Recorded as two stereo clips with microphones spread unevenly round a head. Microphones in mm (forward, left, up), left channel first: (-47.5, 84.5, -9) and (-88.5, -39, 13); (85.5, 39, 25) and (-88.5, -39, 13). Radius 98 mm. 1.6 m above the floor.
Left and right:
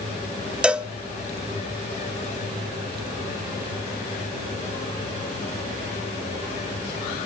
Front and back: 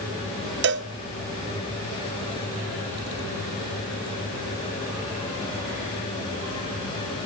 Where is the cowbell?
165° left, 0.8 m.